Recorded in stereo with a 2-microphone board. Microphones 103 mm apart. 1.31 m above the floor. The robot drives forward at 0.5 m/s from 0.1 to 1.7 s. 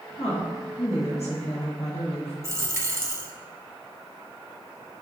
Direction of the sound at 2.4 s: 25° right (ahead or behind).